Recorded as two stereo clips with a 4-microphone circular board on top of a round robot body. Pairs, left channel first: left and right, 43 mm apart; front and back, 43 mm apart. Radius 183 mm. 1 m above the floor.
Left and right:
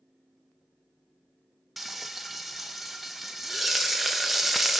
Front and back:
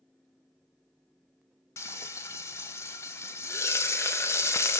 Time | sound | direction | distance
1.8 | frying | straight ahead | 0.5 m